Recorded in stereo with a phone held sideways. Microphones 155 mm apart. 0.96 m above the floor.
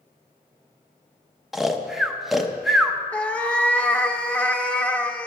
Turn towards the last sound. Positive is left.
turn(degrees=10)  # may be behind; listen again after turning